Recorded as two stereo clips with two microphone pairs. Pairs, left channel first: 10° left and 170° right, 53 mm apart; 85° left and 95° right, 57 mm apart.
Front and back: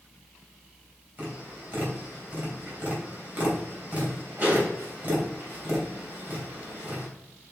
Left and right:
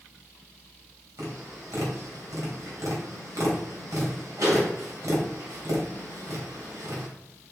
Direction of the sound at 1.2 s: 110° right.